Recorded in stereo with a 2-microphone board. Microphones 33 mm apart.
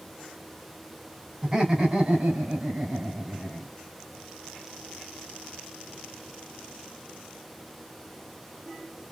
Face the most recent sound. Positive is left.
turn(degrees=-55)  # may be behind; listen again after turning